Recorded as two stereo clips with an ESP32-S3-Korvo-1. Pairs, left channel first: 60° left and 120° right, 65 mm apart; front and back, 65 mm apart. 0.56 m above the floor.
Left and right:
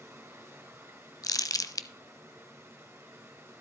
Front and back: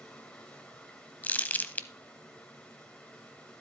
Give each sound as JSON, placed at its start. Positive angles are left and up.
{"t": 0.0, "sound": "running water", "azimuth_deg": -75, "distance_m": 3.0}
{"t": 1.2, "sound": "crumpling", "azimuth_deg": 60, "distance_m": 0.6}